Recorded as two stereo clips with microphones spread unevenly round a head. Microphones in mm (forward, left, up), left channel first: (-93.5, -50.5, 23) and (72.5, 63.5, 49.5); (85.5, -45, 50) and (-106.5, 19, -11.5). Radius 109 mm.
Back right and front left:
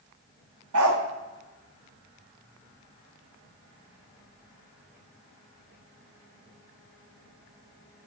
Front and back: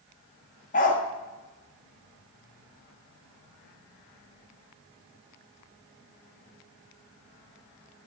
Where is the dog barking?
25° left, 1.2 m.